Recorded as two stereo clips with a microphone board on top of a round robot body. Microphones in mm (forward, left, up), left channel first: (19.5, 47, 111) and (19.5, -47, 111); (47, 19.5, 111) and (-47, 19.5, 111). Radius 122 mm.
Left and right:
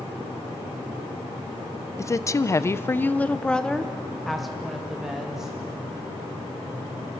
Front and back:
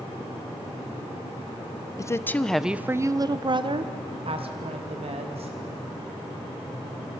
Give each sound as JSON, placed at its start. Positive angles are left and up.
{"t": 2.0, "sound": "a woman speaking", "azimuth_deg": 45, "distance_m": 0.8}